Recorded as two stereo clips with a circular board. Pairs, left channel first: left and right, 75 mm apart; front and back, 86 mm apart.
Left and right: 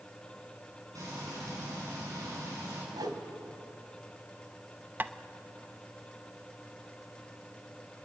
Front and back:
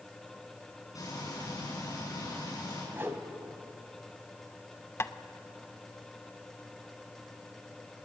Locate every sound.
0.9 s frying: 50° right, 9.5 m
2.9 s a whoosh: 115° right, 2 m
5.0 s tapping: 40° right, 0.6 m